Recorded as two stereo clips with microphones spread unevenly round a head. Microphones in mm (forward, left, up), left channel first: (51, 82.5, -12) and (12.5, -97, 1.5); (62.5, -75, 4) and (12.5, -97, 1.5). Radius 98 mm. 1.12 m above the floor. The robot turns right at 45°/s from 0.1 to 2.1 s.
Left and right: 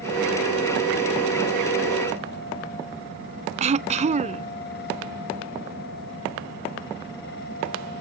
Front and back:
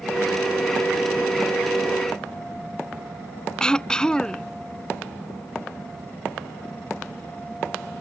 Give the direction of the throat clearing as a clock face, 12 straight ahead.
2 o'clock.